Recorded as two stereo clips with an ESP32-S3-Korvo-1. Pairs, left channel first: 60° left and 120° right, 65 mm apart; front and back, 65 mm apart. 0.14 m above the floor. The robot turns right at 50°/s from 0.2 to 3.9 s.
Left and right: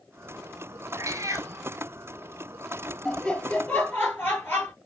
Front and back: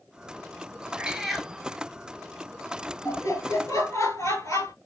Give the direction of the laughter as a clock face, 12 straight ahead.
1 o'clock.